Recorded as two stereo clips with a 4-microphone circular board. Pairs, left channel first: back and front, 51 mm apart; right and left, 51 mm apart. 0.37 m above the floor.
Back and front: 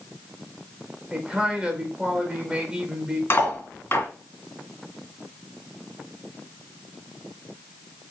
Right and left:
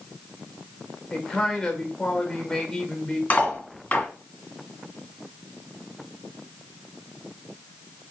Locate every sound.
1.1 s a man speaking: 25° right, 1.1 m
3.3 s cutlery clinking: 155° right, 1.6 m